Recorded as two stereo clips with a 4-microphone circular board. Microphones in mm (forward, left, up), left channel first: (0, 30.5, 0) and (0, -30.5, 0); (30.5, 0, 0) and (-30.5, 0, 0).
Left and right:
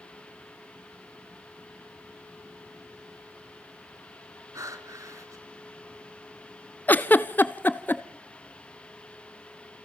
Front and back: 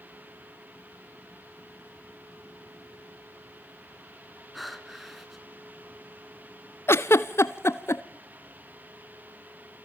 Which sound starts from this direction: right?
Breathing, at 4.5 s.